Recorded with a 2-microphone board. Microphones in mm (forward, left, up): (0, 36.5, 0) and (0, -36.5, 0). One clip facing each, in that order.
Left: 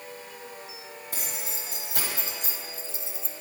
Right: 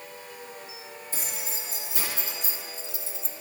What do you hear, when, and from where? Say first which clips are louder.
1.1 s keys jangling: even; 65° left (ahead or behind), 2.5 m; by 3.4 s 15° right (ahead or behind), 0.6 m